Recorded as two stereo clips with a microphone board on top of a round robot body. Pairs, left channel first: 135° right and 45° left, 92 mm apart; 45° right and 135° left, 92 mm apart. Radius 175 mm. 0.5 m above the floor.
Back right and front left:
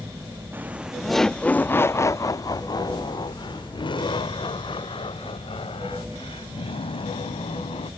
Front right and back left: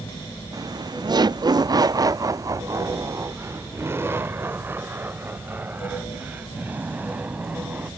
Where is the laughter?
105° left; by 7.9 s 150° right.